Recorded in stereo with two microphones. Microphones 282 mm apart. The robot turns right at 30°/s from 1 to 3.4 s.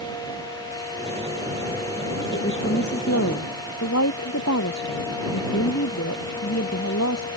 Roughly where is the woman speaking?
Ahead left.